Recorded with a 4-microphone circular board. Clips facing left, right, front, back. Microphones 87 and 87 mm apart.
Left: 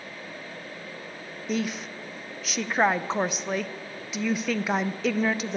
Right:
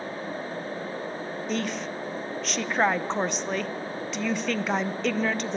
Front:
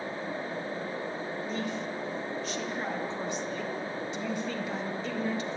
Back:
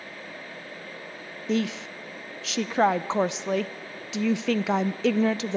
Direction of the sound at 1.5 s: 175° left.